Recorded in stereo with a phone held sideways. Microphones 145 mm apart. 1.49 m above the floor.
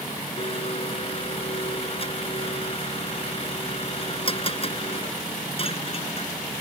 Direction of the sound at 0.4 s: 40° left (ahead or behind).